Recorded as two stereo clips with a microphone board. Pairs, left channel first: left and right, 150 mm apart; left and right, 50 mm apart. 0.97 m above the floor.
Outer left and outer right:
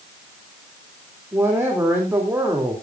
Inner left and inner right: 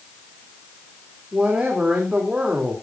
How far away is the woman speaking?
About 3 m.